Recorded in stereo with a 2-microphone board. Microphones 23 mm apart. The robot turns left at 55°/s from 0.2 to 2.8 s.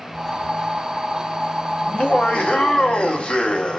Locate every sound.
1.8 s laughter: 120° left, 1.7 m; by 3.8 s 70° left, 1.7 m